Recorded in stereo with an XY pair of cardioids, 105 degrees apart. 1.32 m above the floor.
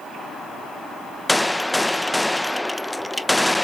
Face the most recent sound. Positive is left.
turn(degrees=10)